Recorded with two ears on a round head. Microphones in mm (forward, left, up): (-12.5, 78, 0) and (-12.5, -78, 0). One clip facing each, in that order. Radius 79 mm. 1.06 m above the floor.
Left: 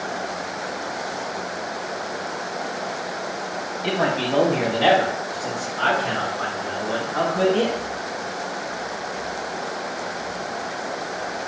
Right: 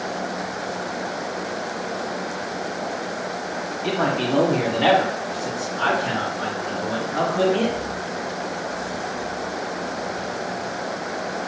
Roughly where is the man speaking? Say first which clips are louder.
Even; centre.